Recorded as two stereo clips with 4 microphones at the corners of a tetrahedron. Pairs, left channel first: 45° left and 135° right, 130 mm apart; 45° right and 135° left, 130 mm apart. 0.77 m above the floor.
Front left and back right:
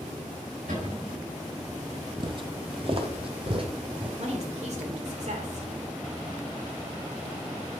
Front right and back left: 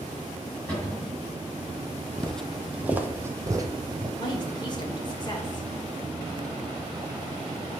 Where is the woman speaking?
100° right, 2.5 m.